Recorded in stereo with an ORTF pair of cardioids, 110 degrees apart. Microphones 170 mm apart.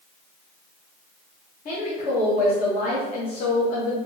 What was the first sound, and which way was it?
A woman speaking, 60° left.